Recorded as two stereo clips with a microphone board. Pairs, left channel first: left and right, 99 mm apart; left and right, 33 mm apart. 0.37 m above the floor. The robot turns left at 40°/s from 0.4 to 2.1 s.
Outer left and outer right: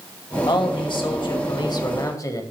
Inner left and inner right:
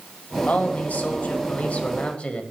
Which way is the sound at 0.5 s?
110° left.